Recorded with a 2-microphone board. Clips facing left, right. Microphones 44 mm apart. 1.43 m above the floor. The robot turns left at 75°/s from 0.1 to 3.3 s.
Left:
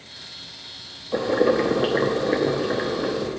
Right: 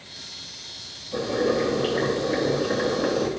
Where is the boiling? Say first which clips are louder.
Left 4 dB; 145° left, 0.9 m; by 3.3 s 20° right, 0.9 m.